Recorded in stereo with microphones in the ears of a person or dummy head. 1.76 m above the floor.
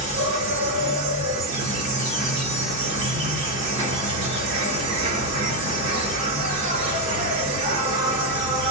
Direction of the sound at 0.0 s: 35° right (ahead or behind).